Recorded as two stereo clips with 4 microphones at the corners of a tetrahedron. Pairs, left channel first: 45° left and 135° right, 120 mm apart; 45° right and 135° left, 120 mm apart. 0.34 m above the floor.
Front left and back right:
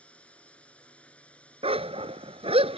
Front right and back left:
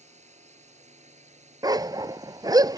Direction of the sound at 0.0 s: 125° left.